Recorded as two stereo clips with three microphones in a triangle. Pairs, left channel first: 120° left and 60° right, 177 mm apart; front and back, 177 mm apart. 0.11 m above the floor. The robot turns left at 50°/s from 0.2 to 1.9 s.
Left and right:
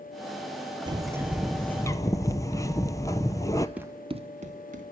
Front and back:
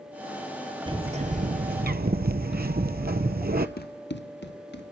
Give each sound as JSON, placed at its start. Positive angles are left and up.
{"t": 0.9, "sound": "a bird", "azimuth_deg": -120, "distance_m": 0.8}
{"t": 3.8, "sound": "running footsteps", "azimuth_deg": 25, "distance_m": 0.6}